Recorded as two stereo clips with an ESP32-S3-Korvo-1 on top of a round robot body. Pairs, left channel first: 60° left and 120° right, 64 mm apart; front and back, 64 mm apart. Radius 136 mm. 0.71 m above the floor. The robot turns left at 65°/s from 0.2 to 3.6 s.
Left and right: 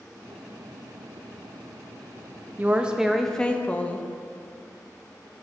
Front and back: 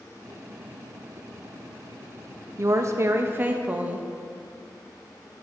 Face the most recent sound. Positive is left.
turn(degrees=120)